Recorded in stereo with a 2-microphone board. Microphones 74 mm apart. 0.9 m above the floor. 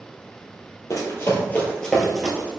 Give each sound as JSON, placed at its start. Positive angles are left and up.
{"t": 0.9, "sound": "running footsteps", "side_deg": 45, "distance_m": 1.4}